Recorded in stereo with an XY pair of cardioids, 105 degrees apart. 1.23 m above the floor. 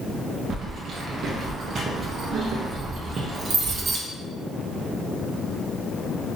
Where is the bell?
No bell in this recording.